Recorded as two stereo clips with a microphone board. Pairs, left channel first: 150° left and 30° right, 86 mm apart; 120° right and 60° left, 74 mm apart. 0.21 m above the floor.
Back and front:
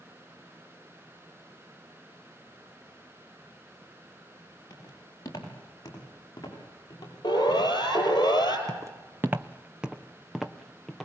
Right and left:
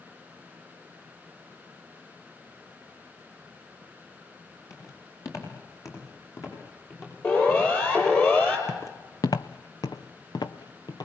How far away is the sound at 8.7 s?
About 0.8 m.